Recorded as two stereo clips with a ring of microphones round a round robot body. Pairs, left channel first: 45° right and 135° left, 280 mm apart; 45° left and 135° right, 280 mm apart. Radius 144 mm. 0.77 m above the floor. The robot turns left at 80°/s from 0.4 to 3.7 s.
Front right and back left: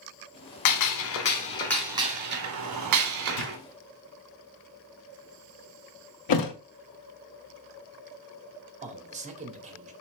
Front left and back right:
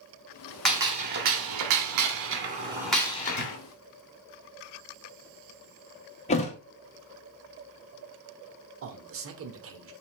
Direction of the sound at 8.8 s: 165° right.